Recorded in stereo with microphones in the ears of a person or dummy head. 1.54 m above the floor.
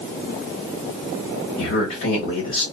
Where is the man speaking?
50° left (ahead or behind), 1.2 m.